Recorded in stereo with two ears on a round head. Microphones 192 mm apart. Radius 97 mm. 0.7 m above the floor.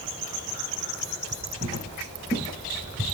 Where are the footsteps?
25° right (ahead or behind), 7.5 m.